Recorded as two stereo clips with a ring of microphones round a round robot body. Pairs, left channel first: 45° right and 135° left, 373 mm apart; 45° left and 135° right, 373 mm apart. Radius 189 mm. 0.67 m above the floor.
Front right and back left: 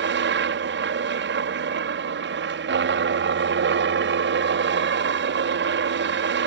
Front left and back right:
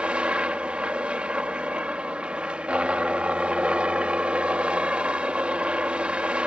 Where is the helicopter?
140° left.